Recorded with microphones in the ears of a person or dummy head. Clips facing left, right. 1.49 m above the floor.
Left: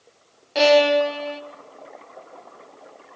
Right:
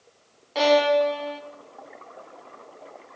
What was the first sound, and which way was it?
A violin, 20° left (ahead or behind).